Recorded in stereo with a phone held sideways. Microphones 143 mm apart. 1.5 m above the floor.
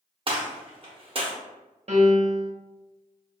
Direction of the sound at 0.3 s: 40° right (ahead or behind).